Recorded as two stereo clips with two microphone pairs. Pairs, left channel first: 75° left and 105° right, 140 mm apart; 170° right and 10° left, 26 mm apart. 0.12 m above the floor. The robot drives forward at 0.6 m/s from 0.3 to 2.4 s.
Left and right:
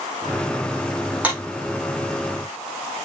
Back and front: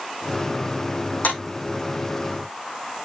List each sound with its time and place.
1.2 s a clap: straight behind, 4 m